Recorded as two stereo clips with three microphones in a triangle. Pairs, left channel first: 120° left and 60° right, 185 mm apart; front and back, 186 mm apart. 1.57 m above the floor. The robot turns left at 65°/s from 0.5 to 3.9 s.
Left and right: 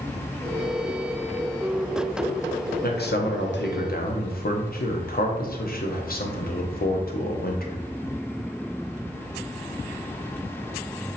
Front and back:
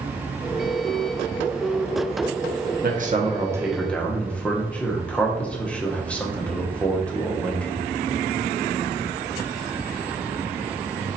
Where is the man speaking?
150° left, 0.8 m; by 7.8 s 80° left, 0.8 m.